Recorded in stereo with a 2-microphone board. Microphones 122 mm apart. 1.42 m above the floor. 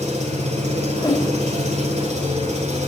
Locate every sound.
0.0 s an engine running: 70° right (ahead or behind), 4.5 m
1.0 s a whoosh: 30° left (ahead or behind), 2 m